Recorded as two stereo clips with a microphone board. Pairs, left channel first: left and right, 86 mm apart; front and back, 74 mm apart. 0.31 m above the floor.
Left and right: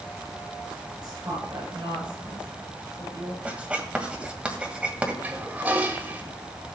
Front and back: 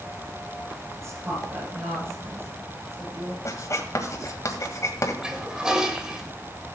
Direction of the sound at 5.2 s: 115° right.